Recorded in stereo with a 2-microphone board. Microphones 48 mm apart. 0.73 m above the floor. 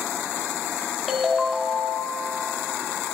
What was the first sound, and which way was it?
A ringtone, 5° left (ahead or behind).